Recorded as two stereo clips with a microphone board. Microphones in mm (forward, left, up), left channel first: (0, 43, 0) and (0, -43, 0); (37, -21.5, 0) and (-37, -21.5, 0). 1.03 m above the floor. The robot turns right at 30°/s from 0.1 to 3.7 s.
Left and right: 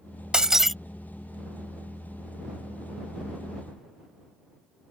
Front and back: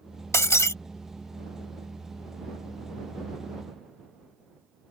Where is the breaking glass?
15° right; by 0.8 s straight ahead.